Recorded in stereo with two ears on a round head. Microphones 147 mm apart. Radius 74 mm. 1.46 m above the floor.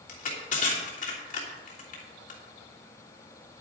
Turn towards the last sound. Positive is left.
turn(degrees=50)  # may be behind; listen again after turning